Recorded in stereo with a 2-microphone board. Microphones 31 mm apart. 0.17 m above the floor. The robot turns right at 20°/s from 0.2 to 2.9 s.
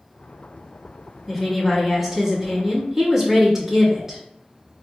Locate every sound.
1.3 s a woman speaking: 10° right (ahead or behind), 1.1 m; by 4.2 s 20° right (ahead or behind), 1.1 m